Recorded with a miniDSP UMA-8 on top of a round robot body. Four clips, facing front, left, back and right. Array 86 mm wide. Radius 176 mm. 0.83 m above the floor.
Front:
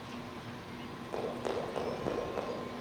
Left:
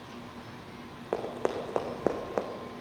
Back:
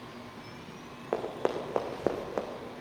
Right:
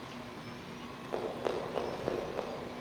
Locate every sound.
1.1 s running footsteps: 140° left, 3.5 m; by 2.5 s 120° left, 2.5 m